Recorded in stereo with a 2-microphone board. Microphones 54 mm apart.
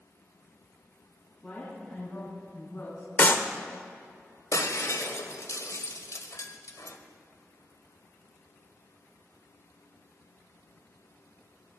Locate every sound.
1.4 s a woman speaking: 10° left (ahead or behind), 4.5 m; by 3.1 s 40° left (ahead or behind), 4.5 m
3.2 s a clap: 35° left (ahead or behind), 1.1 m
4.5 s breaking glass: 70° left (ahead or behind), 1.3 m